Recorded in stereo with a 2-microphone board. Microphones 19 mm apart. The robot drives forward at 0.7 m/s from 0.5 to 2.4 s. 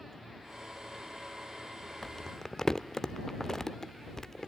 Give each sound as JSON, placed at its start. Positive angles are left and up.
{"t": 2.0, "sound": "crumpling", "side_deg": 20, "distance_m": 0.8}